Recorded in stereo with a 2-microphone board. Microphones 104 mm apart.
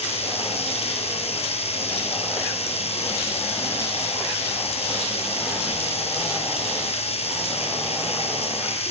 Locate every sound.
0.0 s running water: 85° left, 7.5 m